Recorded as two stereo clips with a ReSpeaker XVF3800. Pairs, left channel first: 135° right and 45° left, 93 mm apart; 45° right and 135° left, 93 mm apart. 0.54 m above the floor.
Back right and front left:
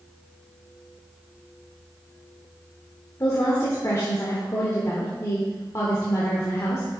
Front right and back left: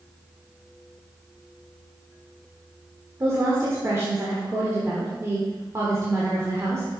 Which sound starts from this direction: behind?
A woman speaking, at 3.2 s.